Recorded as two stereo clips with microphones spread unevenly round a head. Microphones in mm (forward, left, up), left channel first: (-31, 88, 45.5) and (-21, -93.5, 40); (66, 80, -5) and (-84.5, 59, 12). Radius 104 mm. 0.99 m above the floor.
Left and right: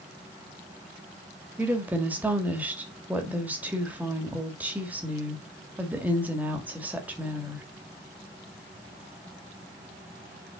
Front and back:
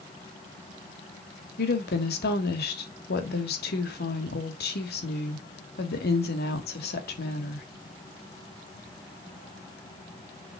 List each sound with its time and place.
1.6 s a woman speaking: 5° right, 1.6 m